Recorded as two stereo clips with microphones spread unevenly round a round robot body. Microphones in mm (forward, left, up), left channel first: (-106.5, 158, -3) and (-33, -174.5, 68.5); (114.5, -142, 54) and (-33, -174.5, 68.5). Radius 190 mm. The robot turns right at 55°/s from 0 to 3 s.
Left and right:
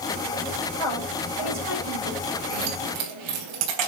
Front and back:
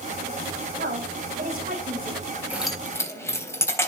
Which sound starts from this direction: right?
Keys jangling, at 2.5 s.